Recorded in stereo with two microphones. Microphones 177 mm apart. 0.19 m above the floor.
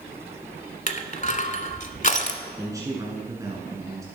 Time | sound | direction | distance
0.9 | crushing | 45° left (ahead or behind) | 0.8 m
2.6 | a man speaking | 20° right (ahead or behind) | 1.8 m